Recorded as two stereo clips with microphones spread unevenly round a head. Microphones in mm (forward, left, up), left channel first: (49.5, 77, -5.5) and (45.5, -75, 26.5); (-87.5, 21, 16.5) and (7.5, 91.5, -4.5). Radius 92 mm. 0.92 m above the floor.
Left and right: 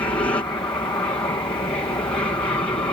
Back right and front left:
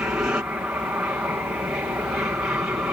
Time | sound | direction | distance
0.0 | an aircraft | 85° left | ?